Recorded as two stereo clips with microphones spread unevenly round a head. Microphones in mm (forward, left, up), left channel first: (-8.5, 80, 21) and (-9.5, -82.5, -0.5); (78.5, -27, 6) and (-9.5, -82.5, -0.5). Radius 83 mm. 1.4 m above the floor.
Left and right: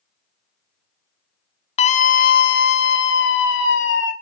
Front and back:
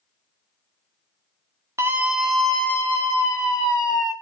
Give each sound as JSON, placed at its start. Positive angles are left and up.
{"t": 1.8, "sound": "a scream", "azimuth_deg": 145, "distance_m": 0.7}